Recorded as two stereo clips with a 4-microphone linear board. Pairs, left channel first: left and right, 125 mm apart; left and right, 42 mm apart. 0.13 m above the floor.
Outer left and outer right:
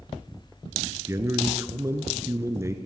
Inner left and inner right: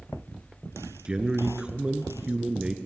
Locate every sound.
1.1 s a man speaking: 25° right (ahead or behind), 1.4 m